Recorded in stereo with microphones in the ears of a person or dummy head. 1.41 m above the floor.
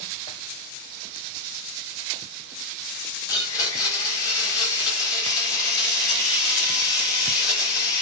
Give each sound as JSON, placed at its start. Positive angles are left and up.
{"t": 3.3, "sound": "a blender", "side_deg": 25, "distance_m": 1.3}